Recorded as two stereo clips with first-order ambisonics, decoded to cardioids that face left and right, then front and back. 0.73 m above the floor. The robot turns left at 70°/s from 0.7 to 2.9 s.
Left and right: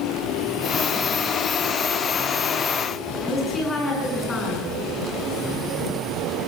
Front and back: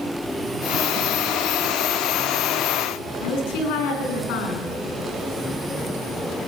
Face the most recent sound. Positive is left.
turn(degrees=15)